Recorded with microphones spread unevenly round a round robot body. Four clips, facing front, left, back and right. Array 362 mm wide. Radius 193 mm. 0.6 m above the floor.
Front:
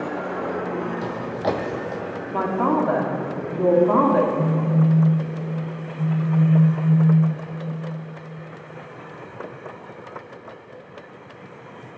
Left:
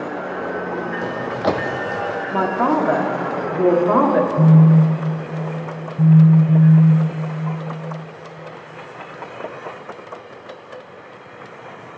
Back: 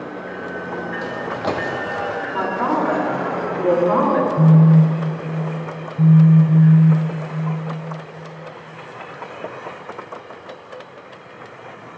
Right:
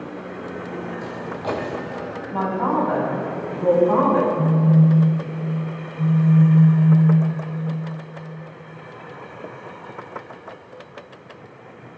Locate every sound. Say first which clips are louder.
1.0 s footsteps: left 7 dB, back 1 dB; 75° left, 1.1 m; by 2.0 s 105° left, 1.4 m
2.3 s a man speaking: left 3 dB, front 1 dB; 75° left, 1.8 m
4.4 s a phone buzzing: left 4 dB, back 7 dB; 140° left, 0.8 m